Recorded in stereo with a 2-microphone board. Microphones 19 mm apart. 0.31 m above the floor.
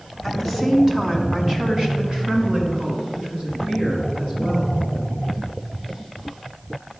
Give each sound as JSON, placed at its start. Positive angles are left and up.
{"t": 0.2, "sound": "a woman speaking", "side_deg": -5, "distance_m": 1.7}